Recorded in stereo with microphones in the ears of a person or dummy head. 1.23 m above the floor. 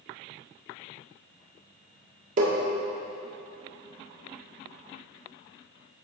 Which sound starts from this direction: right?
Tapping, at 2.4 s.